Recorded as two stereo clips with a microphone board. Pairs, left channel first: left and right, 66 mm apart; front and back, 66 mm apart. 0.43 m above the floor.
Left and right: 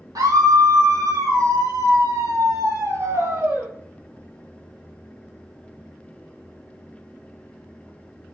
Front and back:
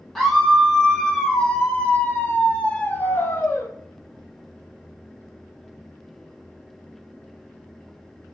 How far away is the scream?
About 3 m.